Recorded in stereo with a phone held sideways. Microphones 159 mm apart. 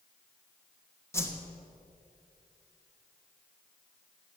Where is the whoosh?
15° left (ahead or behind), 1.3 m.